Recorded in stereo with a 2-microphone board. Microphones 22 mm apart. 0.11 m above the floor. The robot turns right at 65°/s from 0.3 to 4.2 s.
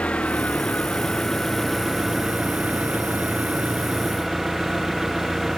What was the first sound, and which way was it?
An engine running, 85° left.